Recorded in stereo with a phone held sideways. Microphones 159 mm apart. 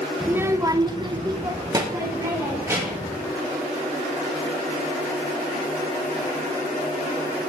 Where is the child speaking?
10° right (ahead or behind), 0.8 m; by 3.1 s 15° right (ahead or behind), 2 m.